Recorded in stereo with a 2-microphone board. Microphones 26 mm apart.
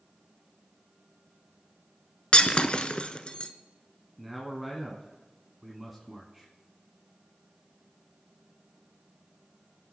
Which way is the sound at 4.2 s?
5° right (ahead or behind).